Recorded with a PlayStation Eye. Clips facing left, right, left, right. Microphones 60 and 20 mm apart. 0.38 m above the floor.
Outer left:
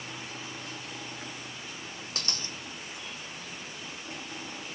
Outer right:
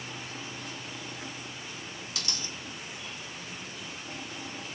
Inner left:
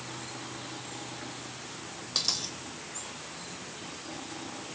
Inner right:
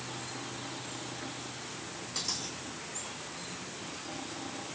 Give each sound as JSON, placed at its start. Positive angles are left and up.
{"t": 2.1, "sound": "a dropped coin", "side_deg": 45, "distance_m": 1.2}